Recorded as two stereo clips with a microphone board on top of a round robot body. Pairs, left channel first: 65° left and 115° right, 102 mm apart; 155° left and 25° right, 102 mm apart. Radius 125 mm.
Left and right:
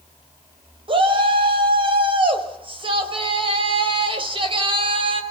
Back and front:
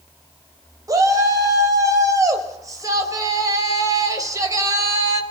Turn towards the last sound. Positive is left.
turn(degrees=-80)